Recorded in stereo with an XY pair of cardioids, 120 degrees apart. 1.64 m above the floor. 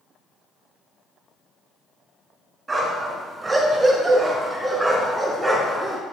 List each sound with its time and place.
2.7 s a dog barking: 30° right, 4.5 m; by 6.0 s 5° right, 4.5 m